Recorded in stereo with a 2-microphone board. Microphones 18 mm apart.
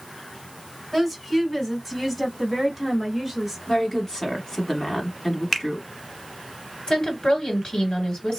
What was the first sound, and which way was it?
A woman speaking, 10° left (ahead or behind).